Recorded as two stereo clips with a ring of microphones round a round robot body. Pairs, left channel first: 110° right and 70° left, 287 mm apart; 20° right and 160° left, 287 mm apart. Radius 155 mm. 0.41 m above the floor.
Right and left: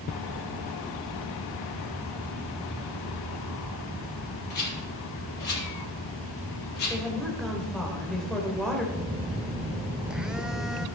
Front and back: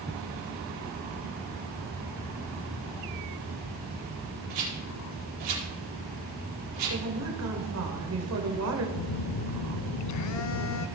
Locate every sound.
4.5 s a rattle: 170° right, 4.5 m
6.9 s a woman speaking: 160° left, 2 m
8.9 s a phone buzzing: 20° right, 0.7 m